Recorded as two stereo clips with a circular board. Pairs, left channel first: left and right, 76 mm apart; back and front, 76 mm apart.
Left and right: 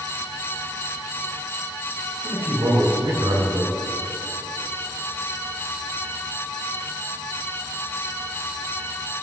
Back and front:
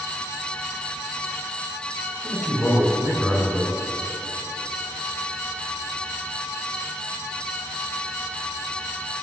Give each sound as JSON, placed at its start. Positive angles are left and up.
{"t": 2.2, "sound": "a man speaking", "azimuth_deg": -95, "distance_m": 5.0}